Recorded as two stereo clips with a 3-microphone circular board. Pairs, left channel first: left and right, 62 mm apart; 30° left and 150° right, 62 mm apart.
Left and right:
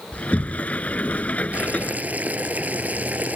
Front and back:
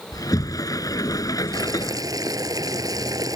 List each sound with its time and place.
0.1 s a sliding door: 25° left
1.5 s boiling: 155° right